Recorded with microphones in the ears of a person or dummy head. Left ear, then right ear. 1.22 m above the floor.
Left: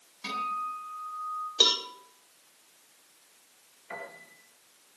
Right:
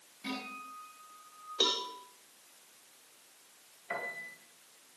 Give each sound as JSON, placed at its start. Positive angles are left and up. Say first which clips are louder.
{"t": 0.2, "sound": "a guitar", "louder": "left 10 dB", "side_deg": 45, "distance_m": 9.0}
{"t": 1.6, "sound": "a cowbell", "louder": "left 6 dB", "side_deg": 25, "distance_m": 1.9}
{"t": 3.9, "sound": "a piano", "louder": "right 3 dB", "side_deg": -10, "distance_m": 3.0}